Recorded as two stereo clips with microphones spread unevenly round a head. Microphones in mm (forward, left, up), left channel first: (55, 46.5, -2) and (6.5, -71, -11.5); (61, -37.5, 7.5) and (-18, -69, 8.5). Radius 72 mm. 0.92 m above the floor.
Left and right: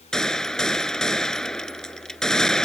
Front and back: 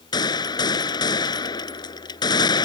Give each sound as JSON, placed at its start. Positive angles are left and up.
{"t": 0.1, "sound": "a gunshot", "azimuth_deg": -15}